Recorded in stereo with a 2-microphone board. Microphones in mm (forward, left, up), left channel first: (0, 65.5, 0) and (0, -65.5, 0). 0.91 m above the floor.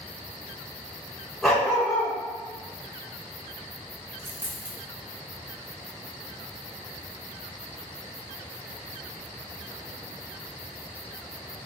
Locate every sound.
1.4 s a dog barking: centre (ahead or behind), 1.3 m
4.2 s a dropped coin: 15° right (ahead or behind), 1.0 m